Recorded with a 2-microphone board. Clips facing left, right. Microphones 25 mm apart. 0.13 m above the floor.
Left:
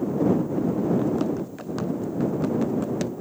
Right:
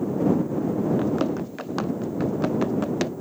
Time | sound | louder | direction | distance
1.0 | running footsteps | even | 25° right (ahead or behind) | ?